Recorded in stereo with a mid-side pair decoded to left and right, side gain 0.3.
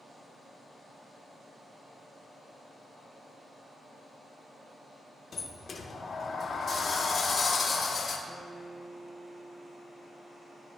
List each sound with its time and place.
5.3 s a sliding door: 55° left, 0.9 m
8.3 s a guitar: 35° left, 1.5 m